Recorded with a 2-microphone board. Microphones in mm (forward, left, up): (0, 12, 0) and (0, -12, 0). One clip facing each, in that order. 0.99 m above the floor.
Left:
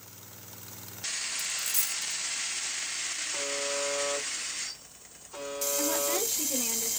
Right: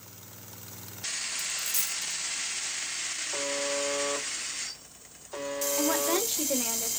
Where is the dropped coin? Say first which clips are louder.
Even; 50° right (ahead or behind), 0.9 m.